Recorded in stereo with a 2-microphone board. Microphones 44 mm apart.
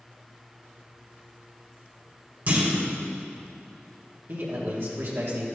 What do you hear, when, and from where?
2.5 s a clunk: 45° right (ahead or behind), 4 m
4.3 s a man speaking: 60° right (ahead or behind), 3 m